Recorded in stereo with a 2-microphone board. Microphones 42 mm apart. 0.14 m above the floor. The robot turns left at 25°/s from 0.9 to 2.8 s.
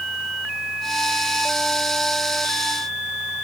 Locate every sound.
Only background noise.